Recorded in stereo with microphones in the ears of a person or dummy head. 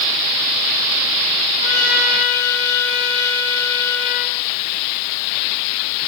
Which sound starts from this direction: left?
A trumpet, at 1.6 s.